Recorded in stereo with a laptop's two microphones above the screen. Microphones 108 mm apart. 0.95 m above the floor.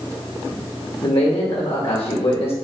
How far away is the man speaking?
About 1.4 m.